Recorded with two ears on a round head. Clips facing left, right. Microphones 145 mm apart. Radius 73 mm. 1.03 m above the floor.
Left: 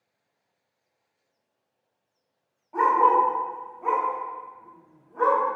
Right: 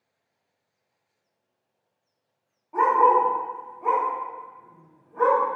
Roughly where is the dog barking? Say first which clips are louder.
Right 1 dB; centre.